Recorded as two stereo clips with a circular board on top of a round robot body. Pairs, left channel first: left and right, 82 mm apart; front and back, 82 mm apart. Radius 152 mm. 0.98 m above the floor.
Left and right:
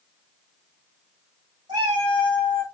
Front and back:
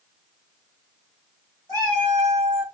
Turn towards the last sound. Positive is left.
turn(degrees=-55)